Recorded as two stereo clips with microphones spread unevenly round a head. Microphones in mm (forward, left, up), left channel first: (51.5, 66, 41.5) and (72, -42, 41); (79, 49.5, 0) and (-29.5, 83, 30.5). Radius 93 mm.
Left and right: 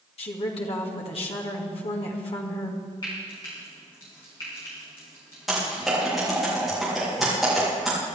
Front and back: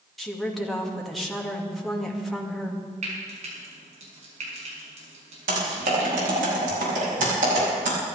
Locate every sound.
0.2 s a woman speaking: 75° left, 2 m
3.0 s frying: 170° left, 5.5 m
5.5 s typing on a keyboard: 165° right, 3 m